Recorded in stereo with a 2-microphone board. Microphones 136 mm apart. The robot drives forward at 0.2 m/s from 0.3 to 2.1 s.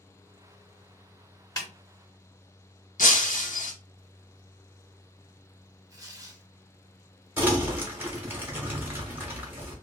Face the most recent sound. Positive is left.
turn(degrees=-15)  # may be behind; listen again after turning